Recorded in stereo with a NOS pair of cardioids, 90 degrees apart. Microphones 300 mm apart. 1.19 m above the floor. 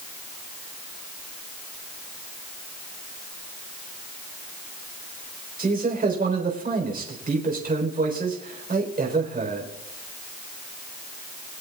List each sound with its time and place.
5.6 s a man speaking: 30° right, 4 m